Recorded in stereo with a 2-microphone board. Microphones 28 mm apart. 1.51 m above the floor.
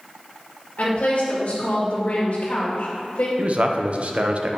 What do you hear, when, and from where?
0.8 s a woman speaking: 60° left (ahead or behind), 2 m
3.4 s a man speaking: 50° right (ahead or behind), 0.7 m